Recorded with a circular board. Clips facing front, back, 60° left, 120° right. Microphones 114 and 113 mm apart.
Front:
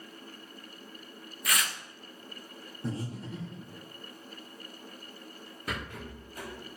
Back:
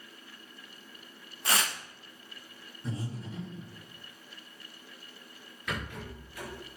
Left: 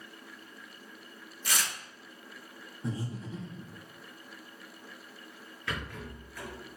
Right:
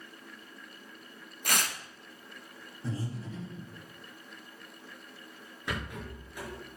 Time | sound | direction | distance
1.4 | tearing paper | 125° right | 0.8 m
2.8 | breathing | 10° right | 4.5 m
5.7 | a rattle | 50° right | 4 m